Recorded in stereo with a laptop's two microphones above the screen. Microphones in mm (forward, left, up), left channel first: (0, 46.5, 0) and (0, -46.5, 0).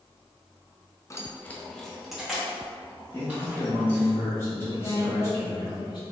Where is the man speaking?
25° left (ahead or behind), 1.3 m.